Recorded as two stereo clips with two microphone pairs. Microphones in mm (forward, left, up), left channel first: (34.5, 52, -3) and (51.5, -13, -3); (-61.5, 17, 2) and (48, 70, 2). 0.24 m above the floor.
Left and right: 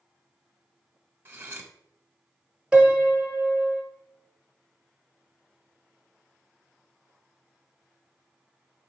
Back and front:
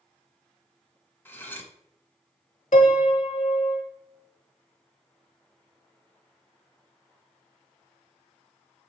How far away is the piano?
About 0.7 m.